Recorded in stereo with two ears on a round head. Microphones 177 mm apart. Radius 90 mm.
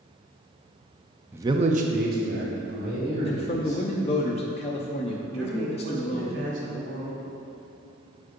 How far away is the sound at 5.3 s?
About 2 m.